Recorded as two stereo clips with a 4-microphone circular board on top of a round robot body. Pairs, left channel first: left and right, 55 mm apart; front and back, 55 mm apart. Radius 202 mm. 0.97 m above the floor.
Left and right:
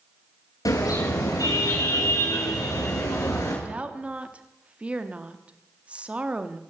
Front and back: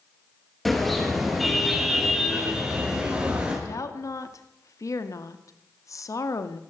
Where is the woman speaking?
20° right, 2 m.